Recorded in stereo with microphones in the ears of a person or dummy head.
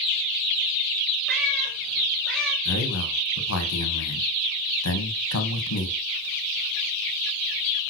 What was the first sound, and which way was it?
A cat meowing, 10° left (ahead or behind).